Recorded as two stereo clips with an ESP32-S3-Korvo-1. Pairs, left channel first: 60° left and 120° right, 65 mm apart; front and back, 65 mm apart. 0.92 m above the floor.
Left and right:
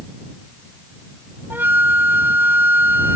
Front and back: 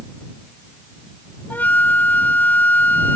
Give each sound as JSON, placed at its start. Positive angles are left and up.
{"t": 1.5, "sound": "a flute", "azimuth_deg": -65}